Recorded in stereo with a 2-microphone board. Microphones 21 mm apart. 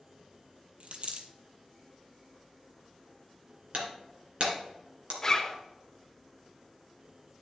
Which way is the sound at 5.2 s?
15° left (ahead or behind).